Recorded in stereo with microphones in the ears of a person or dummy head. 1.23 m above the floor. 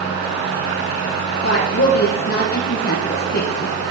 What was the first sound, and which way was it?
A woman speaking, 55° left (ahead or behind).